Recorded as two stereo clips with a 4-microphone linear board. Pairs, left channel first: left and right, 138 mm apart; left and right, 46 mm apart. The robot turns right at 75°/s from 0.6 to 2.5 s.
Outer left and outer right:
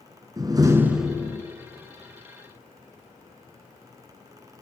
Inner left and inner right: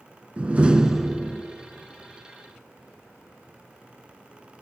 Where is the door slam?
35° right, 1.5 m; by 1.4 s 30° left, 1.5 m.